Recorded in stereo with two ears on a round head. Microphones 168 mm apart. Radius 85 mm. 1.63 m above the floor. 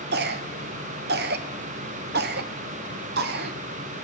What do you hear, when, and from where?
0.1 s a cough: 55° right (ahead or behind), 0.6 m